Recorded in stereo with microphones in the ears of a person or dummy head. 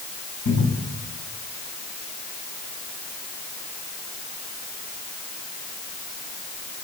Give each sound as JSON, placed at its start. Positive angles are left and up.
{"t": 0.5, "sound": "a cupboard door", "side_deg": 60, "distance_m": 9.0}